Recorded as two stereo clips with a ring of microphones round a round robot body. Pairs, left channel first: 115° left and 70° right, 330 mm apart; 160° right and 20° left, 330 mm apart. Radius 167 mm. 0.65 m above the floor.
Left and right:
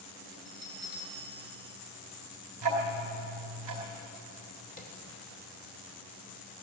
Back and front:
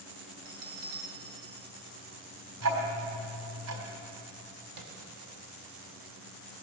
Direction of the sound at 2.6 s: 30° right.